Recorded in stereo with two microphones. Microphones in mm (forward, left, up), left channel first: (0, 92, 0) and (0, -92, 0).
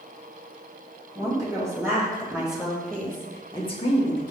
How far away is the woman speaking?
About 1.8 m.